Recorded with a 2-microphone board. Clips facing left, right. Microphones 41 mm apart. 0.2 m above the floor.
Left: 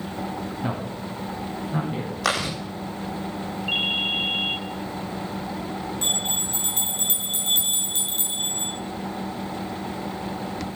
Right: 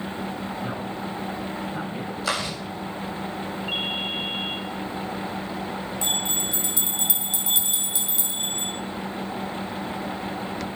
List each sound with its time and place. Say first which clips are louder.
0.6 s a man speaking: even; 55° left (ahead or behind), 8 m
2.2 s chewing: left 3 dB; 80° left, 7 m
3.7 s a ringtone: left 5 dB; 25° left (ahead or behind), 1.9 m
6.0 s a bell: right 2 dB; 45° left (ahead or behind), 3.5 m